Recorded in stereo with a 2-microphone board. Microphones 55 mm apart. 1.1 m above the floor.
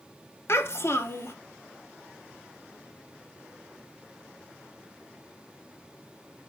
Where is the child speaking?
50° left (ahead or behind), 0.9 m.